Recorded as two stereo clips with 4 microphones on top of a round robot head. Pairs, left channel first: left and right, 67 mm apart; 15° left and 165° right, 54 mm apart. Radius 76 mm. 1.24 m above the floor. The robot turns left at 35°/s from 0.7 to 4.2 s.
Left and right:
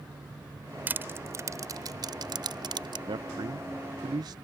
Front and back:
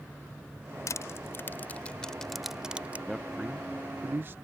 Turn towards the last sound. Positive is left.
turn(degrees=-115)